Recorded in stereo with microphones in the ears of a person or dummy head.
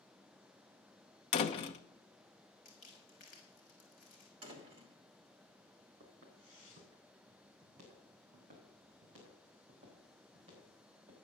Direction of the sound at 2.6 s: 50° left (ahead or behind).